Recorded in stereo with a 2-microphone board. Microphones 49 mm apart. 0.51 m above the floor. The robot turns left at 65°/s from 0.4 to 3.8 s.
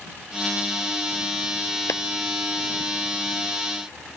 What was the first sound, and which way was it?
A clap, 60° left (ahead or behind).